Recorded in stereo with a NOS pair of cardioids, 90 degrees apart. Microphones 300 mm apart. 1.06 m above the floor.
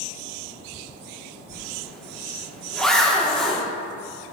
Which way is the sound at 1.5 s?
Straight ahead.